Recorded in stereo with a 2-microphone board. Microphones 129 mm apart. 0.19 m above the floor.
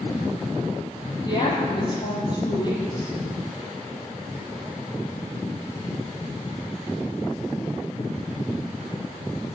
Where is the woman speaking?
30° left (ahead or behind), 4.5 m.